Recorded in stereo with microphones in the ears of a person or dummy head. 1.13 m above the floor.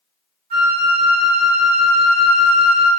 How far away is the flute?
About 0.7 m.